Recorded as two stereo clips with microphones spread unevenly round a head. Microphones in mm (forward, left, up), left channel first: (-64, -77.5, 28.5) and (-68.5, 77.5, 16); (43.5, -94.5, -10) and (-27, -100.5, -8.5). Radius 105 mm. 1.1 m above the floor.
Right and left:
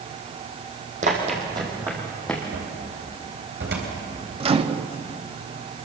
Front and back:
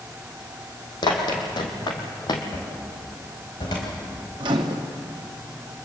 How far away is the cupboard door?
About 4 m.